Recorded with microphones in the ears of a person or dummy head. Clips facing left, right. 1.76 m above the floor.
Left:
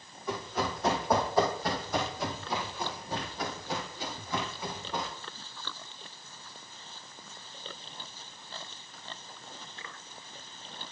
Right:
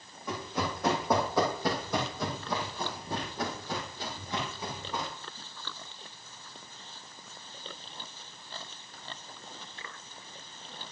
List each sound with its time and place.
0.3 s running footsteps: 70° right (ahead or behind), 5 m; by 5.1 s 10° right (ahead or behind), 3.5 m